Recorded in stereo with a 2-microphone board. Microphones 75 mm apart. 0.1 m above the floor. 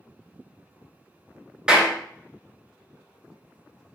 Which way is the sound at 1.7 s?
10° right (ahead or behind).